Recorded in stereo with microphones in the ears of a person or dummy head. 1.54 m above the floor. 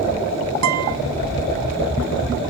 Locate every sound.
0.6 s a guitar: 80° right, 1.0 m